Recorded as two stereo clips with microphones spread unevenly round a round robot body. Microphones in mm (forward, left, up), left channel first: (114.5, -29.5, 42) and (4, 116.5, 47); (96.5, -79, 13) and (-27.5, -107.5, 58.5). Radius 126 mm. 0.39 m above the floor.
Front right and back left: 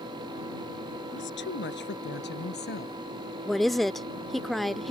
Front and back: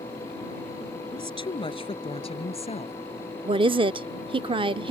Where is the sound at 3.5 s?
135° right.